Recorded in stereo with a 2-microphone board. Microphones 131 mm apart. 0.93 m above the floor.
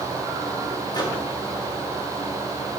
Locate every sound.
0.9 s a microwave: 35° left (ahead or behind), 1.8 m